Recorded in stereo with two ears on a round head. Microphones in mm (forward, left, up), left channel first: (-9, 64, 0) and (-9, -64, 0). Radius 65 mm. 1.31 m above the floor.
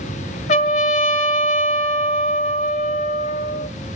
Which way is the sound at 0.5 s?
45° left (ahead or behind).